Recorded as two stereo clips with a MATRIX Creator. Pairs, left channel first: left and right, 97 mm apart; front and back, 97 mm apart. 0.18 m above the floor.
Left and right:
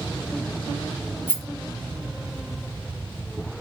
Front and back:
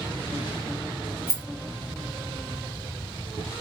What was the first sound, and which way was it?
A rattle, 140° left.